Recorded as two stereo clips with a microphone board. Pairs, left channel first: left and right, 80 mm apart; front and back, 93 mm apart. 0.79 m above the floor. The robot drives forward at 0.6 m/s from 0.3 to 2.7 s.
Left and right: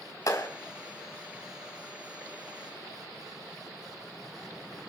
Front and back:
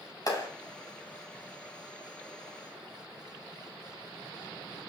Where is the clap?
50° left, 6 m.